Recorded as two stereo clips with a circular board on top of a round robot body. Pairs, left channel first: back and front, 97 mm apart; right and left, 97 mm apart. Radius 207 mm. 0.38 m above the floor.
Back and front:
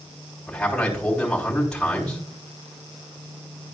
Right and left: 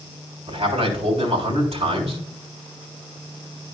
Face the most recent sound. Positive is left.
turn(degrees=95)